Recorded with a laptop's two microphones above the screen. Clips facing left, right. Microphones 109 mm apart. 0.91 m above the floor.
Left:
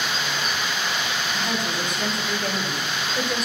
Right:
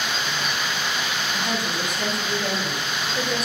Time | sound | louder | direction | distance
1.3 | a woman speaking | right 1 dB | centre (ahead or behind) | 4.5 m